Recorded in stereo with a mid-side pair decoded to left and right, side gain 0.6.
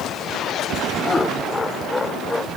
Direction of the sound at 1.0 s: 25° left.